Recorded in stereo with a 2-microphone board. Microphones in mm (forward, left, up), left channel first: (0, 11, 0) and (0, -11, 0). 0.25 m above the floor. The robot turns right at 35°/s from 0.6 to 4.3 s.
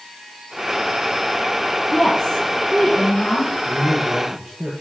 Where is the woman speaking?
10° left, 3 m; by 3.5 s 70° left, 3 m.